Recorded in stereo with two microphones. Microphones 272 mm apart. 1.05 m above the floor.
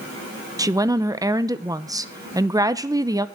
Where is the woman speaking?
10° right (ahead or behind), 0.7 m.